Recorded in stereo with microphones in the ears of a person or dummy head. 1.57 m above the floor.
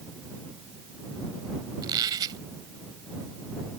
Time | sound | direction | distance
1.8 | a squeak | 25° right (ahead or behind) | ?